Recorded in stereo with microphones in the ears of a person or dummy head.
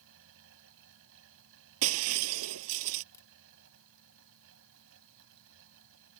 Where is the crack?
15° left (ahead or behind).